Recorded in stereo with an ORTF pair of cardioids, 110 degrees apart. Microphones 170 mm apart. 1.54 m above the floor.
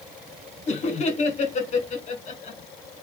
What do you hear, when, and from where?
0.7 s laughter: 45° left, 1.6 m